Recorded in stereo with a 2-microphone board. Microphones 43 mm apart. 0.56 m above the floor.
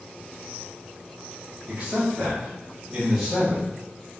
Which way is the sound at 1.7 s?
30° right (ahead or behind).